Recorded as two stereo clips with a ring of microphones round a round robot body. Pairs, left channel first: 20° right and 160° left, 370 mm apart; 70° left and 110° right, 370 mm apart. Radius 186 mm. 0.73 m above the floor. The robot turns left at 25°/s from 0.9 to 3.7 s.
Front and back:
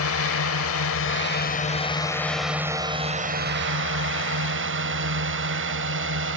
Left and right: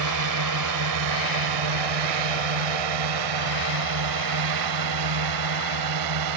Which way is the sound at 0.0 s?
75° right.